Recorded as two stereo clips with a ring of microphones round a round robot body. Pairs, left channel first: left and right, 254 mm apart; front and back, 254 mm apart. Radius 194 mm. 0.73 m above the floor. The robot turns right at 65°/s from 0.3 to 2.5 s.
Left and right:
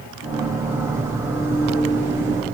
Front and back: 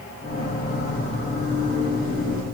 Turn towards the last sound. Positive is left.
No sound to turn to.